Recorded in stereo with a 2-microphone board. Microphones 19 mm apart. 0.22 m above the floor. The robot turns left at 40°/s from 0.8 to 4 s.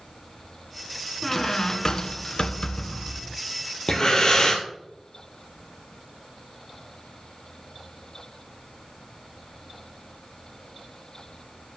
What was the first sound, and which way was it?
A squeak, 165° left.